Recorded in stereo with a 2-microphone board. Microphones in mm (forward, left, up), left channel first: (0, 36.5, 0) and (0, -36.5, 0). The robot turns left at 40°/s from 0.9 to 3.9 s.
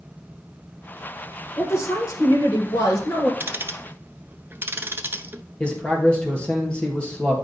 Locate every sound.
1.6 s a woman speaking: 130° left, 2 m; by 3.3 s 60° left, 2 m
3.4 s ticking: 30° right (ahead or behind), 0.6 m
5.6 s a man speaking: 15° left (ahead or behind), 2.0 m